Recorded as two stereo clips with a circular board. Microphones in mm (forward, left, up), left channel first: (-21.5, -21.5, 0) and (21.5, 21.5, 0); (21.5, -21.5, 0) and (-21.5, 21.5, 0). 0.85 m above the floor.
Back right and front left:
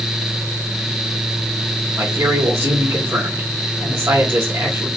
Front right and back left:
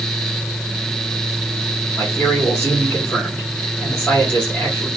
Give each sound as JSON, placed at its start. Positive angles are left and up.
{"t": 2.0, "sound": "a man speaking", "azimuth_deg": 15, "distance_m": 2.5}